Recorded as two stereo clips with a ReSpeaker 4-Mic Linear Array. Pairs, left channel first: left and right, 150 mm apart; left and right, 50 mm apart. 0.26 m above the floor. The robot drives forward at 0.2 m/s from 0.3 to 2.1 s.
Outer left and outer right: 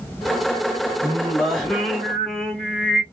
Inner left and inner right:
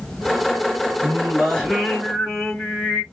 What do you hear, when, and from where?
1.0 s singing: 5° left (ahead or behind), 1.8 m